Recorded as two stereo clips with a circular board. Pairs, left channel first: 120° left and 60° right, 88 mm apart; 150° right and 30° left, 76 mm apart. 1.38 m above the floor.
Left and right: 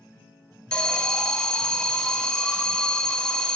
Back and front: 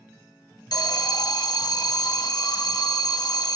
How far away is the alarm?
About 1.3 m.